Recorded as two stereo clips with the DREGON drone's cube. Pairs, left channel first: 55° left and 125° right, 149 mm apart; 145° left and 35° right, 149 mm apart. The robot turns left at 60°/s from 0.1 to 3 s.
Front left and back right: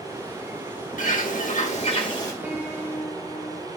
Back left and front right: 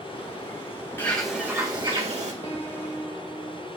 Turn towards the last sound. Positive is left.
turn(degrees=130)